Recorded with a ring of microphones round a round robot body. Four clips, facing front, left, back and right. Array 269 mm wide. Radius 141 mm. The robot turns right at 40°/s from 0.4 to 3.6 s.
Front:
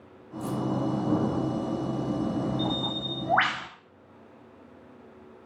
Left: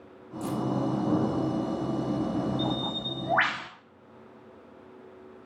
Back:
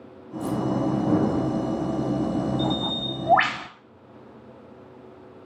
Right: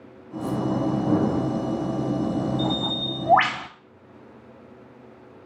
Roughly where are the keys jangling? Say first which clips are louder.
Right 4 dB, back 4 dB; left.